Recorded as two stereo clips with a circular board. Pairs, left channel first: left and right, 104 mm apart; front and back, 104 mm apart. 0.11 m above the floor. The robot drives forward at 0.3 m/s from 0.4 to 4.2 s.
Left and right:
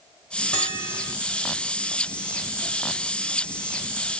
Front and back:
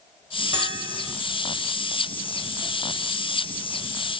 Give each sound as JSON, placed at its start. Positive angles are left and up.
{"t": 0.5, "sound": "a bell", "azimuth_deg": 140, "distance_m": 2.5}